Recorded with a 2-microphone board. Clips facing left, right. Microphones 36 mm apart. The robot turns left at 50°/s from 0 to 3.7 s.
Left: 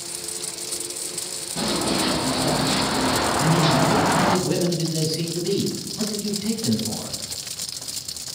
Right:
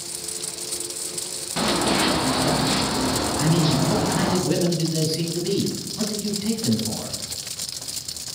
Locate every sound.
1.6 s running footsteps: 70° right (ahead or behind), 1.6 m; by 4.4 s 65° left (ahead or behind), 0.8 m
3.4 s a man speaking: centre (ahead or behind), 1.6 m; by 7.2 s 5° right (ahead or behind), 1.6 m